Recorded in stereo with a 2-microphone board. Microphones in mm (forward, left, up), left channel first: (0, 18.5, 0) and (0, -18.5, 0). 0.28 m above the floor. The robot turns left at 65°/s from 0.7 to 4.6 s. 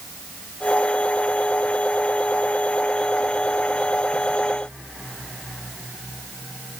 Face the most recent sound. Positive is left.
No sound to turn to.